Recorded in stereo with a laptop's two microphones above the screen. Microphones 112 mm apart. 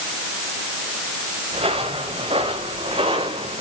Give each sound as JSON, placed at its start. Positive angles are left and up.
{"t": 1.5, "sound": "footsteps", "side_deg": -65, "distance_m": 5.5}